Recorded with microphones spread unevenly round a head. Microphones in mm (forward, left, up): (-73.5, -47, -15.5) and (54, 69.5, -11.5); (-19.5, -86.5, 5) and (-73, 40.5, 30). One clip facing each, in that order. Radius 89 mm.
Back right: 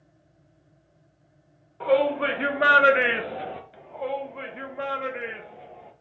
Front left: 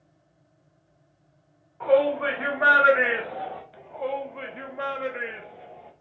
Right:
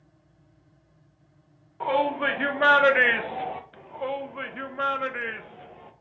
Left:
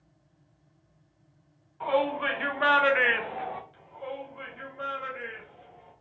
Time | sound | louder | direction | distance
1.8 | a shout | front left 1 dB, right 2 dB | 90° right | 1.3 m
3.7 | a shout | front left 1 dB, right 7 dB | 50° right | 0.5 m